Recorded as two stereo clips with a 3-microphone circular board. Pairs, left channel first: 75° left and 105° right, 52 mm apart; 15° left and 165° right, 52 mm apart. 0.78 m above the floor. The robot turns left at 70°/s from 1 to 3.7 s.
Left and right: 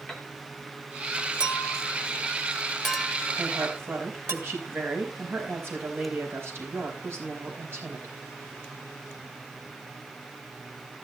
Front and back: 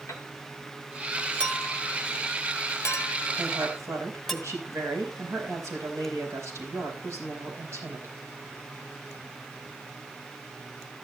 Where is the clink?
90° left, 1.5 m; by 4.3 s 70° right, 1.5 m.